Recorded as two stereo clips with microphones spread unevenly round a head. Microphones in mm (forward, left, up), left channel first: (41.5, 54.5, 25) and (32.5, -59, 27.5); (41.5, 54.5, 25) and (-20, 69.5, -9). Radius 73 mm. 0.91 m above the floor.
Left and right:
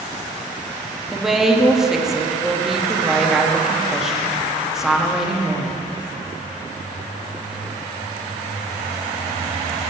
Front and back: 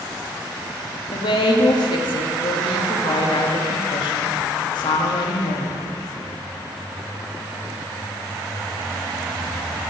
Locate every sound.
1.1 s a woman speaking: 5° right, 1.1 m